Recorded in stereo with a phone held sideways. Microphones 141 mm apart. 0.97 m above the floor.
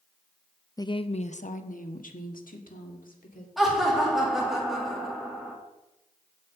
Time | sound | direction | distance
0.8 | a woman speaking | 25° left (ahead or behind) | 0.6 m
3.6 | laughter | centre (ahead or behind) | 2 m